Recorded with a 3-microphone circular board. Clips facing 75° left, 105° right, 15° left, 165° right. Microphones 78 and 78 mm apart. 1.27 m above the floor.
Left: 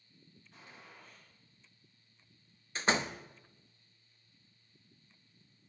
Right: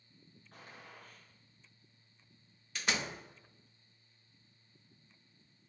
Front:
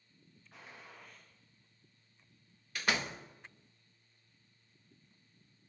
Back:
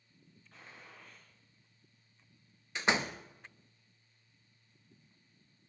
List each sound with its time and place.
0.5 s a gunshot: 70° right, 6.5 m
2.8 s a door slam: 130° left, 1.0 m